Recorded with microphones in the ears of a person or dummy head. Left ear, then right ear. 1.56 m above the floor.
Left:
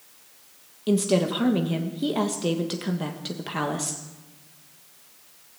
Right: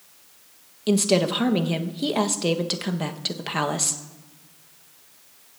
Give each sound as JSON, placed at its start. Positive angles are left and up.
{"t": 0.9, "sound": "a woman speaking", "side_deg": -25, "distance_m": 1.3}